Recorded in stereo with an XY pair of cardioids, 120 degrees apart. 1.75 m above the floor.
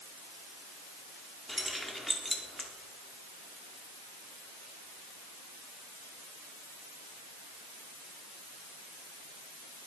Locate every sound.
1.5 s keys jangling: straight ahead, 3 m